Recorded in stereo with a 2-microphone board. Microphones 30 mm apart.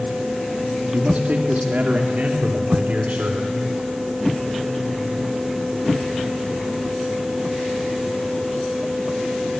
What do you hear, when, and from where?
0.9 s a man speaking: 65° right (ahead or behind), 2 m; by 3.5 s 60° right (ahead or behind), 3.5 m